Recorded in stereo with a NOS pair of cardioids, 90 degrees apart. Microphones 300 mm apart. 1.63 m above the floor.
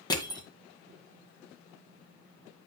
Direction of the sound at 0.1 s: 15° left.